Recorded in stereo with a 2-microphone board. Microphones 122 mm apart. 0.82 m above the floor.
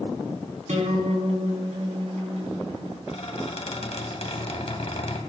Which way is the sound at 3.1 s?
65° left (ahead or behind).